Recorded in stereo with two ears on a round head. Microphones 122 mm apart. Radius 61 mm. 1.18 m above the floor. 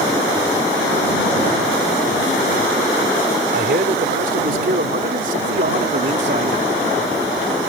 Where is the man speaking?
80° right; by 6.6 s 55° right (ahead or behind).